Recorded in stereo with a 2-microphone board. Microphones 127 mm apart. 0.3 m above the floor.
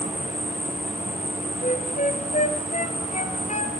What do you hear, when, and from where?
0.0 s an insect: 70° left (ahead or behind), 7 m
1.6 s a flute: 75° left (ahead or behind), 1.5 m